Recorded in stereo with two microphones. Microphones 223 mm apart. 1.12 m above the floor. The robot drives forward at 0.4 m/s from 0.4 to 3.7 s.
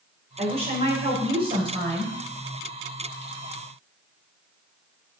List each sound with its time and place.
0.4 s a woman speaking: 30° right (ahead or behind), 4 m; by 2.1 s 25° right (ahead or behind), 4.5 m